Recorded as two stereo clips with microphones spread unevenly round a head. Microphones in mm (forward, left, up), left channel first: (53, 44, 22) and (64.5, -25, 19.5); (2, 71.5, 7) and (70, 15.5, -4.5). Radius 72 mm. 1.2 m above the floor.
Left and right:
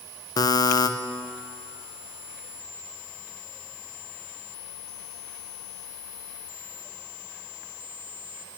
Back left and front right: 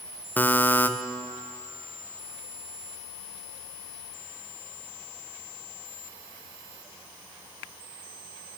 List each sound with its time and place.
0.4 s a buzzer: 70° left, 0.5 m